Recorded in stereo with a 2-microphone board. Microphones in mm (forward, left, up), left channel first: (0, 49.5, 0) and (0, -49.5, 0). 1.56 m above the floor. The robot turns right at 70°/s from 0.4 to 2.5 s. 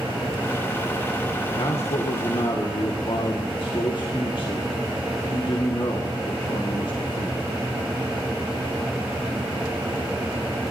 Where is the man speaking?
60° left, 1.8 m; by 7.6 s 125° left, 1.8 m.